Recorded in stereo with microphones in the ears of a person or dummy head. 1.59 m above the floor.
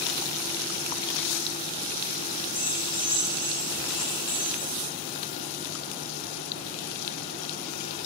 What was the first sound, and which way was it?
Keys jangling, 20° left (ahead or behind).